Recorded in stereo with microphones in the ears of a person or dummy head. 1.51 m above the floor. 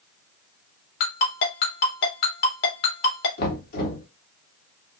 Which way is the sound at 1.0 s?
60° left (ahead or behind).